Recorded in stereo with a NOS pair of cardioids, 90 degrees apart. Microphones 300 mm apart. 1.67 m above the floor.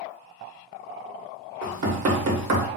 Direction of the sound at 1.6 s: 60° right.